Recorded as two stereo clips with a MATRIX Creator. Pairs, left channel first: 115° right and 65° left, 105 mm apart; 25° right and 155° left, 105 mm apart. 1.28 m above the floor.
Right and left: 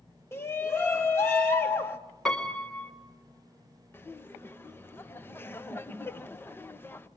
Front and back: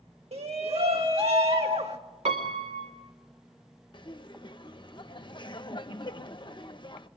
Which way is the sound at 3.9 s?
45° right.